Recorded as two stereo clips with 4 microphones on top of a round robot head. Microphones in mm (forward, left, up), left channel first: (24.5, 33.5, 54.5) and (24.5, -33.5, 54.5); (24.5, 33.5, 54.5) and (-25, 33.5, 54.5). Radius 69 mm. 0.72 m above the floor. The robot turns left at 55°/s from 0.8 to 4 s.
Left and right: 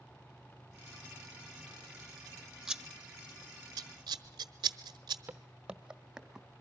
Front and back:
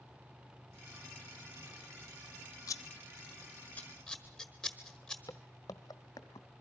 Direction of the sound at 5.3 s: 30° right.